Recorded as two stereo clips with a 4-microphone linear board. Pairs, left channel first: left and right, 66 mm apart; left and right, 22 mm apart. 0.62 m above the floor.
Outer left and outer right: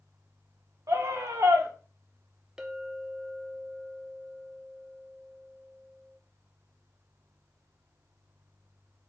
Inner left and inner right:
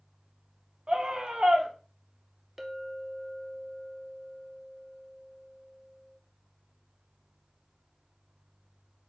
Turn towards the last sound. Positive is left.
turn(degrees=-10)  # may be behind; listen again after turning